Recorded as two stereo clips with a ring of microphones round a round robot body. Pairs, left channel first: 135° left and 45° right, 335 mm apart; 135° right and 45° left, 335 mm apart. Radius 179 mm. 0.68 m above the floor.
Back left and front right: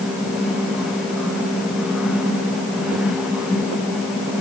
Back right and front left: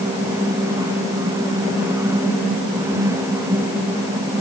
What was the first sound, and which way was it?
Only background noise.